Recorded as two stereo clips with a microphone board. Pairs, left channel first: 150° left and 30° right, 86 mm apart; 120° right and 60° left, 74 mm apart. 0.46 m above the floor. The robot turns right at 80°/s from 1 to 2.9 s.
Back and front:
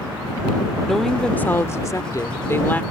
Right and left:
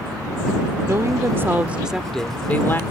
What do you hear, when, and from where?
0.9 s a woman speaking: 65° left; by 2.8 s 150° right